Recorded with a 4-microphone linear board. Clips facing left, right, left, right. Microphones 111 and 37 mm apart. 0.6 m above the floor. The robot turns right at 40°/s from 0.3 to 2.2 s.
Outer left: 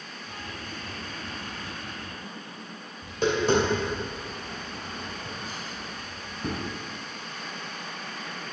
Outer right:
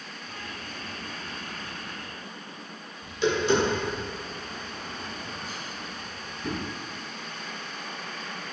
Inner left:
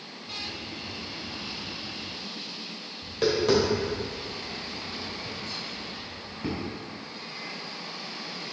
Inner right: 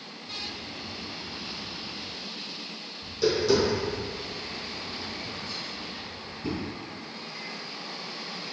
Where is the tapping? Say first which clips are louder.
Even, even; 50° left (ahead or behind), 2 m.